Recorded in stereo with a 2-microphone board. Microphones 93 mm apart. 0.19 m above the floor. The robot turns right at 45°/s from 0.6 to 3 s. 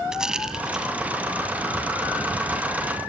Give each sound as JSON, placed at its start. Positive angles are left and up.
{"t": 0.1, "sound": "a rattle", "side_deg": -5, "distance_m": 1.5}